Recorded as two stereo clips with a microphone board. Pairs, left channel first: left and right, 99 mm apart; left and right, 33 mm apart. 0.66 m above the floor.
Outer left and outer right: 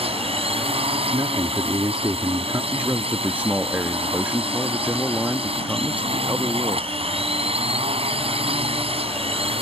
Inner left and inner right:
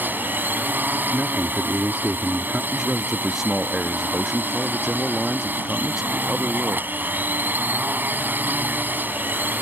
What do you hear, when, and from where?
0.0 s a drone: 75° right (ahead or behind)
1.1 s a man speaking: 40° right (ahead or behind)
2.7 s a man speaking: 15° right (ahead or behind)